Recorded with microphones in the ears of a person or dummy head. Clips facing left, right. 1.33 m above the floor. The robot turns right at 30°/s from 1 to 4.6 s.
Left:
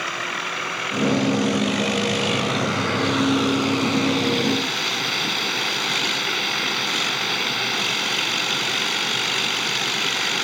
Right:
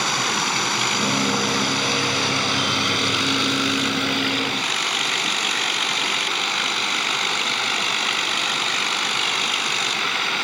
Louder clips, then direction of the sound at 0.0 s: Right 5 dB; 95° right.